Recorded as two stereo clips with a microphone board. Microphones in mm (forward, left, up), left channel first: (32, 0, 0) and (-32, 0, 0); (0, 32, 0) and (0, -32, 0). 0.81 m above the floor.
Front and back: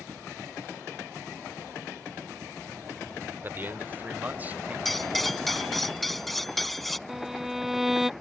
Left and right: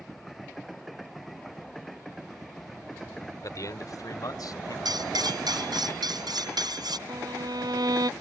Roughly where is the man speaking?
Behind left.